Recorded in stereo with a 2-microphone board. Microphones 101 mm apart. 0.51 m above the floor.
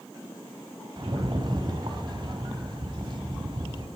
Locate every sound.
1.0 s a rattle: 50° right (ahead or behind), 1.5 m